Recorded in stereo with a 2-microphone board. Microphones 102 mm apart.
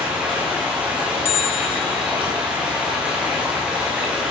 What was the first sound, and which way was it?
Running water, 10° right (ahead or behind).